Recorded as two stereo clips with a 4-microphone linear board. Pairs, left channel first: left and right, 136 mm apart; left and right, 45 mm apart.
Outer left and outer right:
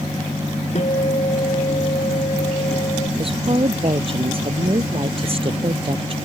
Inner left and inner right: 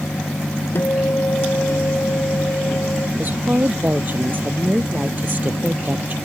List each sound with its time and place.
0.8 s a guitar: 60° left (ahead or behind)
3.2 s a woman speaking: 45° right (ahead or behind)